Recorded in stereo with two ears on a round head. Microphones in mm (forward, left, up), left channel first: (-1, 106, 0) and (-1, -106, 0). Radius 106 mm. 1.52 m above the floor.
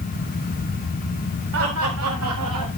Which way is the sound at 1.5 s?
60° right (ahead or behind).